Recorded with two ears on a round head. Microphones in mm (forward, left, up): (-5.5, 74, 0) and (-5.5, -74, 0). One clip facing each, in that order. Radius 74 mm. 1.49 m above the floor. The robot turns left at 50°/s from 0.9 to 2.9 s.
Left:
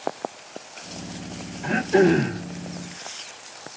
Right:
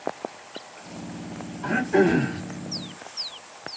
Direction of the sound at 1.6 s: 155° left.